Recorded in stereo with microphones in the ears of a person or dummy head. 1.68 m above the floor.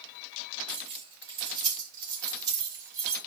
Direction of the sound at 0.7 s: 35° right (ahead or behind).